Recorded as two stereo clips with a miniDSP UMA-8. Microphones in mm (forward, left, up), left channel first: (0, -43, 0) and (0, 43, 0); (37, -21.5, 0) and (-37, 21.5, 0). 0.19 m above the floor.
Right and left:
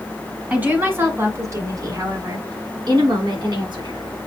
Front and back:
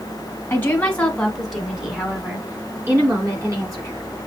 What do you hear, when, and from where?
0.5 s a woman speaking: 25° left, 1.5 m; by 4.1 s 105° left, 2.5 m